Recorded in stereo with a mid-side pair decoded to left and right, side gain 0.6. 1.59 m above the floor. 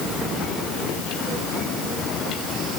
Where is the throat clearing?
I don't hear throat clearing.